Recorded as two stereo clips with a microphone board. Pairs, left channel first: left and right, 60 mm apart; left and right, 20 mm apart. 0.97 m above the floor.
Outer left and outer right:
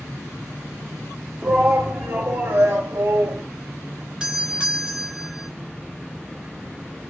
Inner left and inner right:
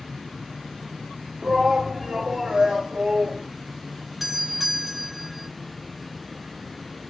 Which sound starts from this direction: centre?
A doorbell, at 4.2 s.